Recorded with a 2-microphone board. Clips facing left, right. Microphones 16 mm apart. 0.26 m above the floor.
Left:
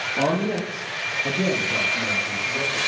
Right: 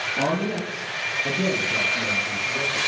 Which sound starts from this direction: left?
A woman speaking, at 0.2 s.